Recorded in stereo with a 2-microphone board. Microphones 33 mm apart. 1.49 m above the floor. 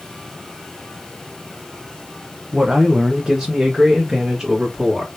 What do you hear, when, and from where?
2.5 s a man speaking: 25° right (ahead or behind), 0.7 m; by 5.1 s 10° right (ahead or behind), 2 m